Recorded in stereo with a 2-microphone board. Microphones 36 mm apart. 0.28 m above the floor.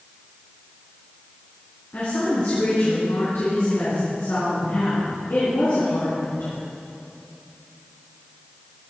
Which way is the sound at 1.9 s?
60° left (ahead or behind).